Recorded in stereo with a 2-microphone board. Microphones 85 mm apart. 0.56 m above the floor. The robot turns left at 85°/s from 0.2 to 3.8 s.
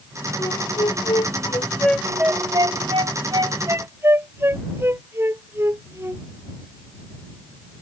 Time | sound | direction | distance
0.4 | a flute | 40° left (ahead or behind) | ?